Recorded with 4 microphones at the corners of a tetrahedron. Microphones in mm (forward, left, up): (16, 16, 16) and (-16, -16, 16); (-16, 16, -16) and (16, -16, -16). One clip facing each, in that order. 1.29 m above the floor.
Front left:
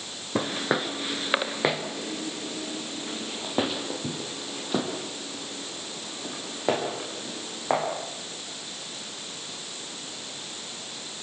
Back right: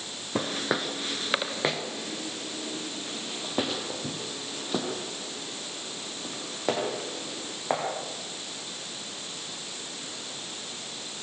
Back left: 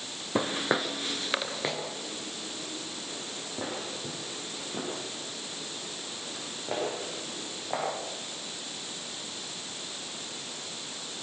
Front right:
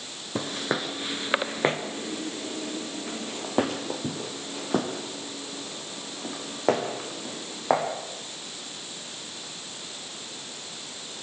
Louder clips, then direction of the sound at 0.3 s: Front left 2 dB, back left 1 dB; 120° left.